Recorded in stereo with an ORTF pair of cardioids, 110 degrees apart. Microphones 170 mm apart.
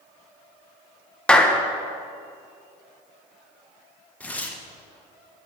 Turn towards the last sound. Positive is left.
turn(degrees=10)